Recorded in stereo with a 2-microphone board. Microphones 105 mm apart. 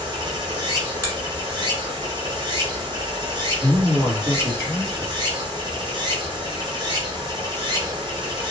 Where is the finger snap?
30° right (ahead or behind), 1.2 m.